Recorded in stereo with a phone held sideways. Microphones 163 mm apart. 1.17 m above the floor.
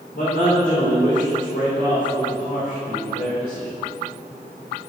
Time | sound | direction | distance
0.1 | a man speaking | 85° left | 3 m